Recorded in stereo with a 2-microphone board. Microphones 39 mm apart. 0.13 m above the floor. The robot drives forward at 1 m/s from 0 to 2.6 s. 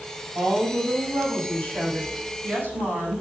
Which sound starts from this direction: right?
A woman speaking, at 0.3 s.